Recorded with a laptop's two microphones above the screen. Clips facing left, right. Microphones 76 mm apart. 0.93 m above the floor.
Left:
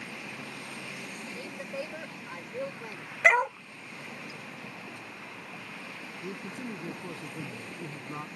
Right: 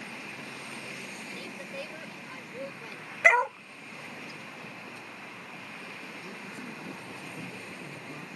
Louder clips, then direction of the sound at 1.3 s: Left 4 dB; 20° left (ahead or behind).